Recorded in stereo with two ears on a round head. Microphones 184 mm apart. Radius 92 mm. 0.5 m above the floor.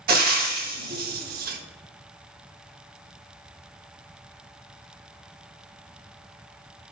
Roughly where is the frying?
Right.